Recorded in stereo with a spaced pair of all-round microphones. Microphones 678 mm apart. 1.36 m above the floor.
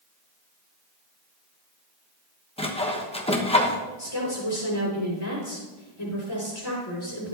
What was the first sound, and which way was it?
Sawing, 10° left (ahead or behind).